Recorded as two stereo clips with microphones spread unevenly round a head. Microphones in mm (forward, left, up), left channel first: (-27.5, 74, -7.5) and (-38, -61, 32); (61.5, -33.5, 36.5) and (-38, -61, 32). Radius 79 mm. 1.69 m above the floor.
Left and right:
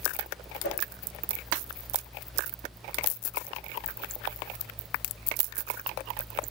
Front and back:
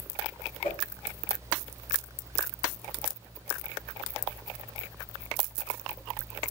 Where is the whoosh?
75° left, 1.5 m.